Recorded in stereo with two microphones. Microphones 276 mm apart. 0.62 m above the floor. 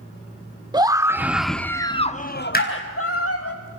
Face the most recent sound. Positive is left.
turn(degrees=35)  # may be behind; listen again after turning